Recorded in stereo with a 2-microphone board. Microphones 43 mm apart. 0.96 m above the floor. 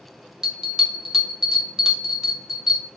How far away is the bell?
About 0.9 m.